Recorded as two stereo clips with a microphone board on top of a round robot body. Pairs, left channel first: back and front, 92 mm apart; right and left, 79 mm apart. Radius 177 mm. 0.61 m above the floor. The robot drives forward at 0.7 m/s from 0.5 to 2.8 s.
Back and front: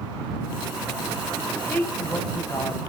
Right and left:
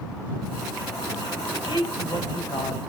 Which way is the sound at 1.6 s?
105° right.